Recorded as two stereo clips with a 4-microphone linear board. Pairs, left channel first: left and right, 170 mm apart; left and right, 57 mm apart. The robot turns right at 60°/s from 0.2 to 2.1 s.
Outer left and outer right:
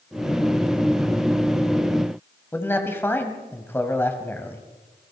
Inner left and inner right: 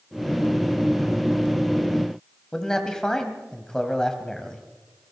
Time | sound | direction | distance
2.5 | a man speaking | 15° left (ahead or behind) | 2.5 m